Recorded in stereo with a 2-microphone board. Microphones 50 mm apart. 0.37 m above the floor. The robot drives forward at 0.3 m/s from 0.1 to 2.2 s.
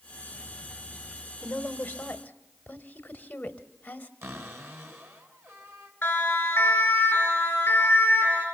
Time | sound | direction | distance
1.4 | a woman speaking | 35° left (ahead or behind) | 1.5 m
4.2 | a cupboard door | 60° right (ahead or behind) | 3.5 m
6.0 | a siren | 35° left (ahead or behind) | 4.5 m